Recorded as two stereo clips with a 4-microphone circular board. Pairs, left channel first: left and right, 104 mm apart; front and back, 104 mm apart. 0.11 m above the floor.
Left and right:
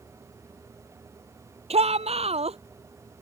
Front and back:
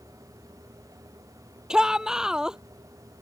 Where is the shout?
95° right.